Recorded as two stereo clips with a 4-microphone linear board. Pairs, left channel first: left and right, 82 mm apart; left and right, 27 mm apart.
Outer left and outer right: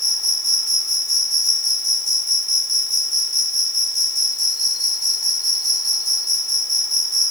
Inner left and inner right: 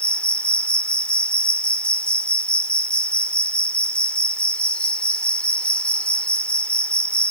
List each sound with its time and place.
0.0 s an insect: 50° left (ahead or behind)